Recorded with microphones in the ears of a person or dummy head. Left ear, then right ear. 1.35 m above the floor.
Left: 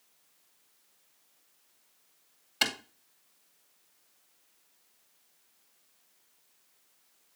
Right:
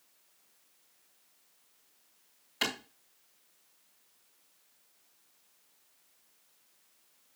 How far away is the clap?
About 2.5 m.